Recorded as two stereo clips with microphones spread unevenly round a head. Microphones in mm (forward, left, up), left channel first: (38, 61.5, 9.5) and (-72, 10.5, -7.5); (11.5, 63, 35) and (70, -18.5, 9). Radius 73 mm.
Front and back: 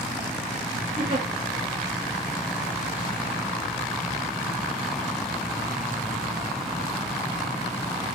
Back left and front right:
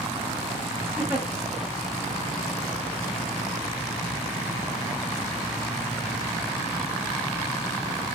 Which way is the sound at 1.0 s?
145° right.